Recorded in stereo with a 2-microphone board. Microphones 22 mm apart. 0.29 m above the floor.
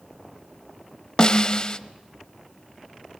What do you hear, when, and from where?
1.2 s a snare drum: 35° left (ahead or behind), 0.6 m